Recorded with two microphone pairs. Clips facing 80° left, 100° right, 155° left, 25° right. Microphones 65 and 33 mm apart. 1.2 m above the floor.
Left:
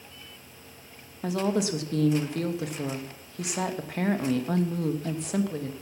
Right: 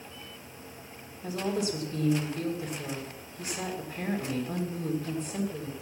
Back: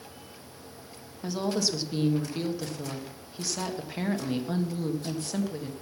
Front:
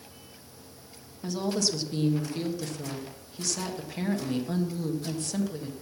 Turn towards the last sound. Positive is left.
turn(degrees=75)